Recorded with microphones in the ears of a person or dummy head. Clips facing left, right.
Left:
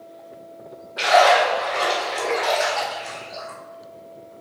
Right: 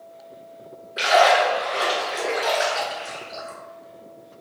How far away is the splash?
About 1.5 m.